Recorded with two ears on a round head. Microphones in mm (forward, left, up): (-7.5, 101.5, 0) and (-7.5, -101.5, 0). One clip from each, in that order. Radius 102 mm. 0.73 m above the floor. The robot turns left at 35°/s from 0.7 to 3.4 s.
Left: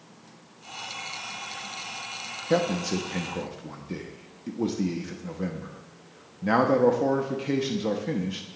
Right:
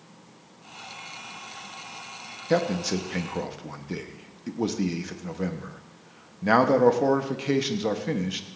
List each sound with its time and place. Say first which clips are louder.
2.5 s a man speaking: right 1 dB; 10° right (ahead or behind), 1.1 m; by 8.4 s 25° right (ahead or behind), 1.1 m